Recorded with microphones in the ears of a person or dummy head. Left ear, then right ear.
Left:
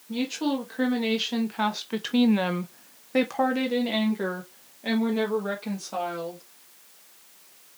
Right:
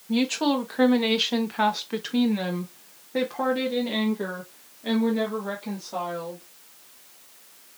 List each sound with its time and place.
0.1 s a woman speaking: 30° right (ahead or behind), 1.3 m; by 6.4 s 65° left (ahead or behind), 2.5 m